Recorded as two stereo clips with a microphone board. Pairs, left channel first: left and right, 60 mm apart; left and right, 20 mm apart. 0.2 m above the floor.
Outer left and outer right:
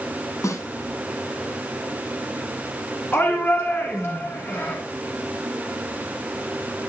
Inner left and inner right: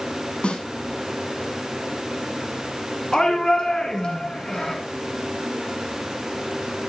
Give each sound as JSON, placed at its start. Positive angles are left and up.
{"t": 0.4, "sound": "a snare drum", "side_deg": 65, "distance_m": 6.0}
{"t": 3.1, "sound": "a shout", "side_deg": 40, "distance_m": 2.0}